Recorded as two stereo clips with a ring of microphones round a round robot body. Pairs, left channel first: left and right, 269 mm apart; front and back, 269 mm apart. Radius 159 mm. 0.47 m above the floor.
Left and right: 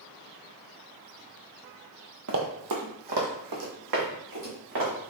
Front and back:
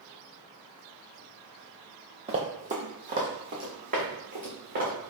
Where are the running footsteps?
115° right, 0.6 m.